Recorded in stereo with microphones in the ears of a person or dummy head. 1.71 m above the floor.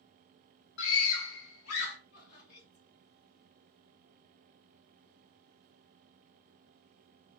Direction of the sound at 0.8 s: 65° left (ahead or behind).